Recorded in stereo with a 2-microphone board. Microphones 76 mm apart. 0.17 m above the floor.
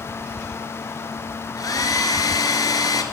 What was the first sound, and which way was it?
A hair dryer, 55° left (ahead or behind).